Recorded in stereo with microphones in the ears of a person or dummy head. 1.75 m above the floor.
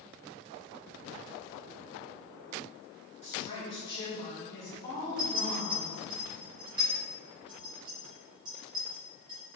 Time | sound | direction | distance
3.2 | a woman speaking | 45° left (ahead or behind) | 2.0 m
5.2 | a clink | 15° right (ahead or behind) | 2.0 m